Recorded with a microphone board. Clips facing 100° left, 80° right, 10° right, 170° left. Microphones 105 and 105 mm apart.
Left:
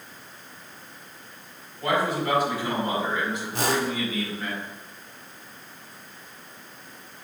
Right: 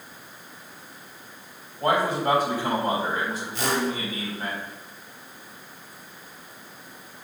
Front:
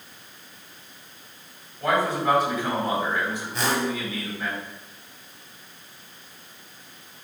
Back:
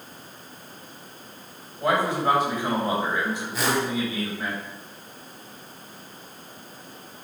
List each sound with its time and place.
1.8 s a man speaking: 125° right, 3.5 m
3.5 s a whoosh: 80° left, 1.8 m